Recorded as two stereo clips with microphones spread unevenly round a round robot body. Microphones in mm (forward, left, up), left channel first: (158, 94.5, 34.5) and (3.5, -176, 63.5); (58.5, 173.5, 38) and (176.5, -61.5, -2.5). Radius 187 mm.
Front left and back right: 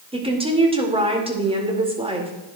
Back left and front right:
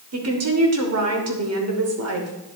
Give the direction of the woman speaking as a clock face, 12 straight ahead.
2 o'clock.